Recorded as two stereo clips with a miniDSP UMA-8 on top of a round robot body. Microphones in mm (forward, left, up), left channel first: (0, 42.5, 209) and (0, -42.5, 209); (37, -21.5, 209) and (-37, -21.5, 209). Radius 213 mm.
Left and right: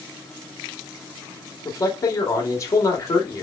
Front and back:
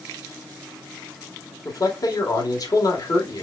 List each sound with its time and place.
1.6 s a man speaking: 40° left, 1.9 m